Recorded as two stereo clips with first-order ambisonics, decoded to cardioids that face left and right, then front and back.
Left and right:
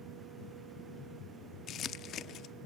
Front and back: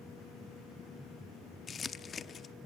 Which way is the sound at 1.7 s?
60° left.